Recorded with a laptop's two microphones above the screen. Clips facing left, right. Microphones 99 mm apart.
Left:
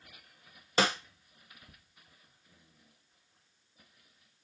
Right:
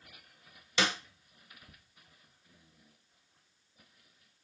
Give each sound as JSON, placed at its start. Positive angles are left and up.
{"t": 0.8, "sound": "a snare drum", "side_deg": 45, "distance_m": 0.6}